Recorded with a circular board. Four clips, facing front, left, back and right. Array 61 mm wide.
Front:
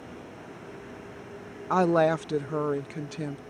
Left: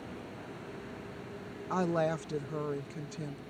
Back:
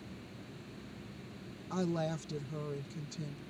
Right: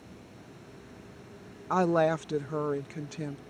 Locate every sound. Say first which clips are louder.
0.0 s a vehicle: left 6 dB, front 7 dB; 30° left; by 3.5 s 5° left
1.7 s a woman speaking: right 6 dB, front 14 dB; 20° right